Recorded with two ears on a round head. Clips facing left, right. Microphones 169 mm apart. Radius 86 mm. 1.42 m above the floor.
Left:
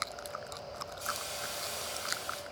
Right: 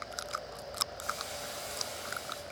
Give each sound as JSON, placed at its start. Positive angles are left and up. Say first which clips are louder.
{"t": 1.0, "sound": "a hiss", "louder": "even", "side_deg": 45, "distance_m": 7.0}